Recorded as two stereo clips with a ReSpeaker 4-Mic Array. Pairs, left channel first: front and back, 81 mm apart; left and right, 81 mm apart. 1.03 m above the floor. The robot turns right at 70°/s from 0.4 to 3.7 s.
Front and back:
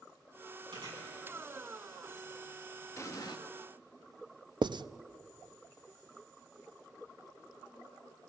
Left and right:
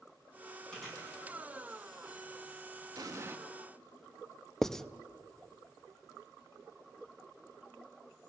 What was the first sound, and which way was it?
Chewing, 170° left.